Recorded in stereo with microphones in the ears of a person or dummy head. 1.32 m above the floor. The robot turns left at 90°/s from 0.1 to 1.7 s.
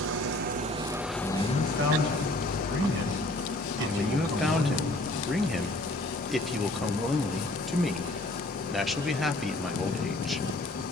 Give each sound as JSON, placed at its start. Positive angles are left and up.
{"t": 0.0, "sound": "an engine running", "azimuth_deg": -85, "distance_m": 0.7}
{"t": 1.2, "sound": "a man speaking", "azimuth_deg": -20, "distance_m": 6.0}
{"t": 3.9, "sound": "a man speaking", "side_deg": 0, "distance_m": 1.2}